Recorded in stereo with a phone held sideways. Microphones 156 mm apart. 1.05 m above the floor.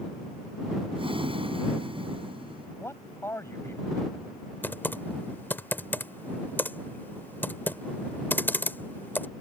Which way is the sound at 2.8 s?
15° left (ahead or behind).